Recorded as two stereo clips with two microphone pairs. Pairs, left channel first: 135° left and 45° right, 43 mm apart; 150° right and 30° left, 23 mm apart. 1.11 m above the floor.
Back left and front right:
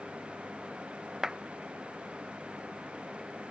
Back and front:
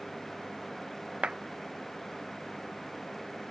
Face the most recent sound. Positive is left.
turn(degrees=30)